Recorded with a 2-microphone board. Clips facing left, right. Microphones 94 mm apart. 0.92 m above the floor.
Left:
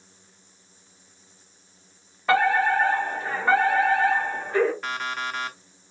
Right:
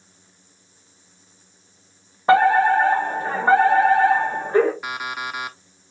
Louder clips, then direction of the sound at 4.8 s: Right 1 dB; 10° right (ahead or behind).